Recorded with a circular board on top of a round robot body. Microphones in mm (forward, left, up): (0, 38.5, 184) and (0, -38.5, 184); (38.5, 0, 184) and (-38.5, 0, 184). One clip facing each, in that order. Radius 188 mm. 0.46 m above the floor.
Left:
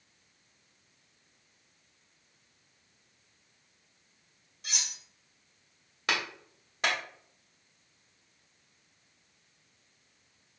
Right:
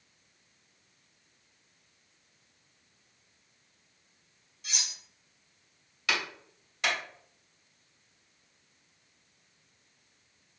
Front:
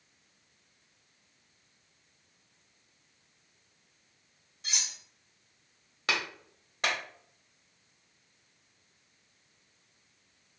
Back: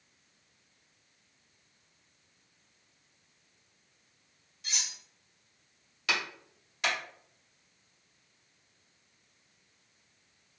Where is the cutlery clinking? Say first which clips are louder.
Even, front 1 dB; 55° left, 1.8 m.